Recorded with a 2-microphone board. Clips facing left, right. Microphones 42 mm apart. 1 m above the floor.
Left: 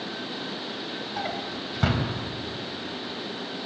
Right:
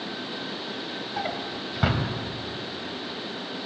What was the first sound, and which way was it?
A drawer, 5° right (ahead or behind).